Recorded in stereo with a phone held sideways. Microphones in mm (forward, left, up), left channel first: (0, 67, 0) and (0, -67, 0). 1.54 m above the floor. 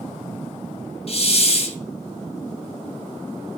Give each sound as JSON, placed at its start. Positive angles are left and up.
{"t": 1.1, "sound": "a hiss", "side_deg": 50, "distance_m": 2.0}